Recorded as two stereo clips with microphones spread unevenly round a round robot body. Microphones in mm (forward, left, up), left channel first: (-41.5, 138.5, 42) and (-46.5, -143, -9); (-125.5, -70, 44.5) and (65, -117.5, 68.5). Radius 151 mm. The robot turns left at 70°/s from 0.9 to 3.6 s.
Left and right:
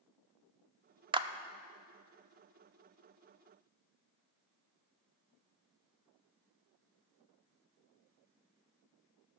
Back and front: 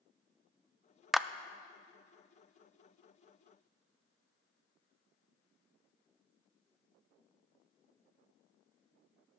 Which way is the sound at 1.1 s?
115° right.